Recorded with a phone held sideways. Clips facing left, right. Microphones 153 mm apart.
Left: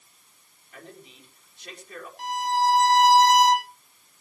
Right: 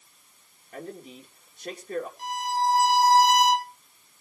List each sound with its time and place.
0.7 s a man speaking: 45° right (ahead or behind), 4.5 m
2.2 s a violin: 80° left, 3.5 m